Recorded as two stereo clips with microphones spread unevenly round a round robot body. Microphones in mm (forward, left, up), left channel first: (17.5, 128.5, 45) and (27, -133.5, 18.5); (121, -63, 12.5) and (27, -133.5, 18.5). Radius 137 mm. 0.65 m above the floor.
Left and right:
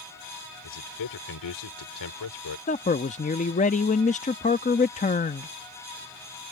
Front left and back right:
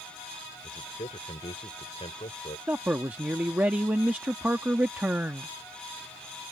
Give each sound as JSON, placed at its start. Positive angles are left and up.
{"t": 0.6, "sound": "a man speaking", "azimuth_deg": 95}
{"t": 2.7, "sound": "a man speaking", "azimuth_deg": 145}